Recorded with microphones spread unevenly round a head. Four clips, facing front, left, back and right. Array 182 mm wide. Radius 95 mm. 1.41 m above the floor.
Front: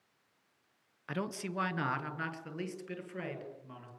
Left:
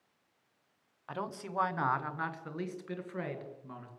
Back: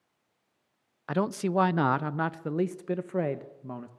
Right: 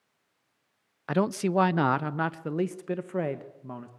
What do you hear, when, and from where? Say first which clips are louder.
1.1 s a man speaking: right 13 dB, back 10 dB; 115° right, 0.7 m; by 3.9 s 150° right, 1.9 m